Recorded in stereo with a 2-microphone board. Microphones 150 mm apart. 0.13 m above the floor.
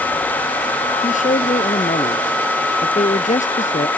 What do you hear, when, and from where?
1.0 s a man speaking: 55° left (ahead or behind)